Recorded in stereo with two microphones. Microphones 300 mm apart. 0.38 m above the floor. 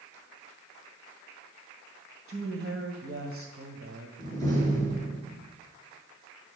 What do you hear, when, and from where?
2.3 s a woman speaking: 45° right (ahead or behind), 1.8 m
4.2 s a door slam: 10° left (ahead or behind), 4.5 m